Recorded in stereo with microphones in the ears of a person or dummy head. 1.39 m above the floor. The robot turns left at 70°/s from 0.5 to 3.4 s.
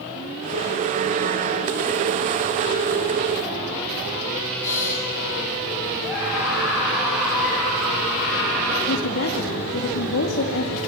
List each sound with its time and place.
4.6 s breathing: 15° left (ahead or behind), 4.5 m
6.0 s a scream: 5° right (ahead or behind), 8 m
8.9 s a woman speaking: 85° left, 2.5 m